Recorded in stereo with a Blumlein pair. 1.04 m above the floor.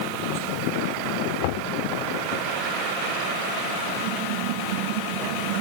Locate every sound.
1.4 s knocking: 50° left